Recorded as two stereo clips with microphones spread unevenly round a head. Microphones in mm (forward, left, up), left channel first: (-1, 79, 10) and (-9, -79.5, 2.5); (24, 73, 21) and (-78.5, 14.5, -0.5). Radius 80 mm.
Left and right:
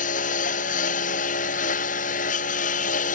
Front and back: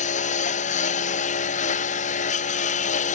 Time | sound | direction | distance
0.0 | a lawn mower | 45° left | ?